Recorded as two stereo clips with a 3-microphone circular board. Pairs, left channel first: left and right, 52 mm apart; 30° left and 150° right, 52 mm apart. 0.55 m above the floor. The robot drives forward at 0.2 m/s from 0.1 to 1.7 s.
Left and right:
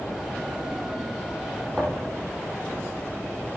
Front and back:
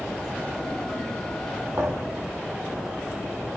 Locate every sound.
1.8 s a thud: 170° left, 10 m